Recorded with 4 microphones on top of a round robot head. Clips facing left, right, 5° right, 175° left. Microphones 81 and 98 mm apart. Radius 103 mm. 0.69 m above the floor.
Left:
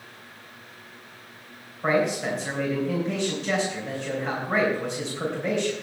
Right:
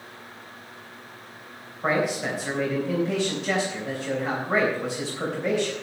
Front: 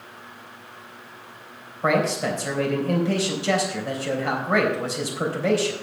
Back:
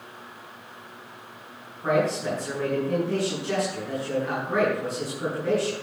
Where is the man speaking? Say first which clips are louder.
Left 1 dB, front 2 dB; 5° right, 4 m.